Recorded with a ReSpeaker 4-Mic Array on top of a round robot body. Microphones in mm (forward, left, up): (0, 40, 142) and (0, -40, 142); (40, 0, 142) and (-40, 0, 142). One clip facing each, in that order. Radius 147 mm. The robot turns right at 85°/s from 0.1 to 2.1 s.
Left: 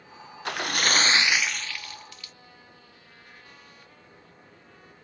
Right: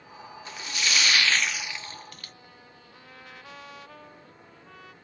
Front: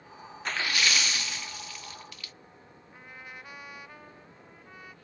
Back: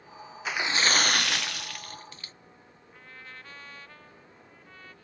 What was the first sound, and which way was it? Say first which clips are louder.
A splash: left 6 dB, back 2 dB; 95° left.